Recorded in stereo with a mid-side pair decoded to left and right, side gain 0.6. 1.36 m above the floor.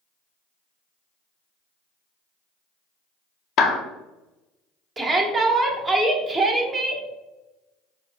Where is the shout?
25° right, 1.3 m.